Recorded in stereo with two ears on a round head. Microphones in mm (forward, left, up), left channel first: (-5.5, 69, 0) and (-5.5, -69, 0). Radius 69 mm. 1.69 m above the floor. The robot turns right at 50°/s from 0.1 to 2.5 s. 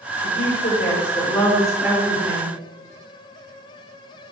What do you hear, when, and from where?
0.2 s a woman speaking: 105° left, 6 m; by 2.5 s 140° right, 6 m